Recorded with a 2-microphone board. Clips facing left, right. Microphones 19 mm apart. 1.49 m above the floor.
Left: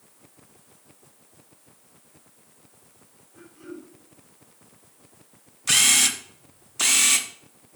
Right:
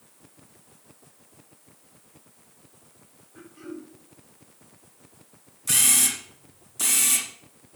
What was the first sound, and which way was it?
Throat clearing, 35° right (ahead or behind).